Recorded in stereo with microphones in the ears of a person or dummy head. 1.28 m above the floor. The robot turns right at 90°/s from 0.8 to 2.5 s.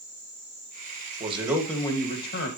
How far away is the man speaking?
About 1.8 m.